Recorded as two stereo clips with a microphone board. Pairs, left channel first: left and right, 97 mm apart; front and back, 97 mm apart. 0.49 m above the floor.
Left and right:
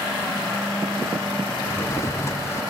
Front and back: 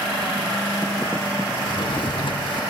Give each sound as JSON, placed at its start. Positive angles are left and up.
{"t": 1.6, "sound": "a drawer", "azimuth_deg": 30, "distance_m": 0.6}